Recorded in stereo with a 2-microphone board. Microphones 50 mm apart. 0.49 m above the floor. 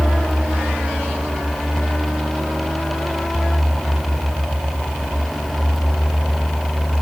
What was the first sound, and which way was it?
Only background noise.